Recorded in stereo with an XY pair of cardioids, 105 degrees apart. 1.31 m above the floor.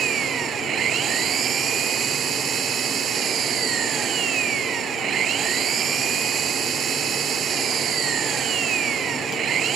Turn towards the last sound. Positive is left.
turn(degrees=-60)